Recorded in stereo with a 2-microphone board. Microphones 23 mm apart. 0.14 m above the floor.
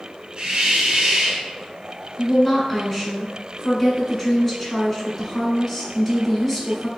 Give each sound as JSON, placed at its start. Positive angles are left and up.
{"t": 0.4, "sound": "a hiss", "side_deg": -35, "distance_m": 1.5}
{"t": 2.2, "sound": "a woman speaking", "side_deg": 20, "distance_m": 1.5}